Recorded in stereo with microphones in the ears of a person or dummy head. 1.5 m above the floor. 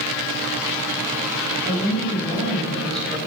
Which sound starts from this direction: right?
A woman speaking, at 1.6 s.